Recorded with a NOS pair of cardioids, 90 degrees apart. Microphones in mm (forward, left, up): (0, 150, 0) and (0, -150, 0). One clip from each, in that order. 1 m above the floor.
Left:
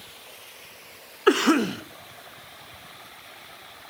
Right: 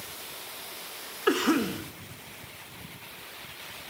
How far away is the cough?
About 0.8 m.